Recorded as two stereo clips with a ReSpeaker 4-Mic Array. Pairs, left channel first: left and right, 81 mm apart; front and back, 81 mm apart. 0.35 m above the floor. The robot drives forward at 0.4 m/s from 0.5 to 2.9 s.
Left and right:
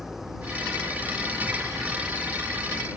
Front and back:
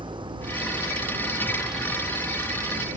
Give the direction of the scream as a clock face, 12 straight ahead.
No scream in this recording.